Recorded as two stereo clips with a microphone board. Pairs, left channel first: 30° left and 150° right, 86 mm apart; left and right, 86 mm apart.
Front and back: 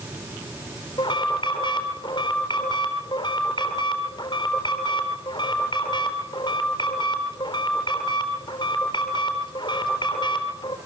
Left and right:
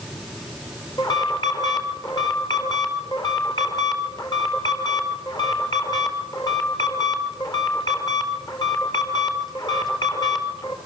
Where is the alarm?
55° left, 4.5 m.